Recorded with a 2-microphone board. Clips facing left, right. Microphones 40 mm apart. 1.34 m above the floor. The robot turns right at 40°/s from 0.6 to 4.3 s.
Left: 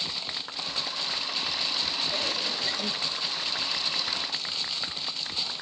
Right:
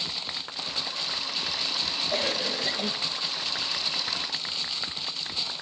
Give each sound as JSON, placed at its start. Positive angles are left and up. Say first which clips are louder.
{"t": 2.1, "sound": "a cough", "louder": "right 2 dB", "azimuth_deg": -60, "distance_m": 1.8}